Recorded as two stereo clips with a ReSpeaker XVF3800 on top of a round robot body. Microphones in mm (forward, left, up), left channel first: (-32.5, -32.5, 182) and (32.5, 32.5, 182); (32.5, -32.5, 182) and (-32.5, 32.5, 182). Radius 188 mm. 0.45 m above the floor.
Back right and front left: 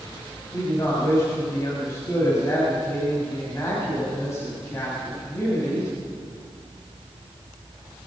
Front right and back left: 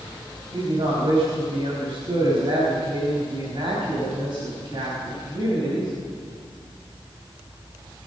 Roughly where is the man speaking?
Behind.